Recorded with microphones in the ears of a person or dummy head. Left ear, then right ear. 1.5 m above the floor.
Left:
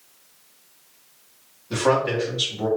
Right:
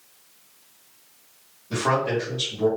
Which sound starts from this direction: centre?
A man speaking, at 1.7 s.